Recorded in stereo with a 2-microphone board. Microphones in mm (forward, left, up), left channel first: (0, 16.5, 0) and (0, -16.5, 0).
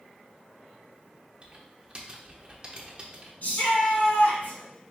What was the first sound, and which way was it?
Typing on a keyboard, 30° right (ahead or behind).